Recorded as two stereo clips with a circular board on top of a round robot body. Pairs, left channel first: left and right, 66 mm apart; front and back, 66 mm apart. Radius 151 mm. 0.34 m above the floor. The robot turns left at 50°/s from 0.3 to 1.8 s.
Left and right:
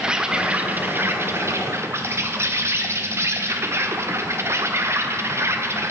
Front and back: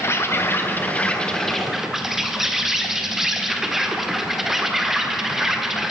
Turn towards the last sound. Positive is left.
turn(degrees=-95)